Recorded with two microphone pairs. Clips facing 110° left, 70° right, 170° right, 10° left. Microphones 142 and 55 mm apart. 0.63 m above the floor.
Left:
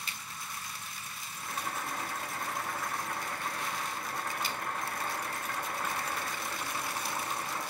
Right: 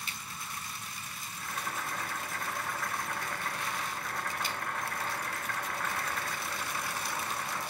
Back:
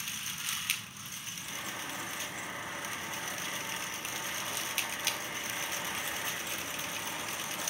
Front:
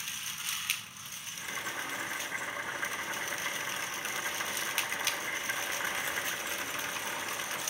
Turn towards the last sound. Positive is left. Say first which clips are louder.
# left 1 dB, front 4 dB
turn(degrees=30)